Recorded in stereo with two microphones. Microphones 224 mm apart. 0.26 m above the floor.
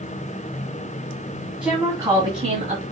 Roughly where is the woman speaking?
Centre.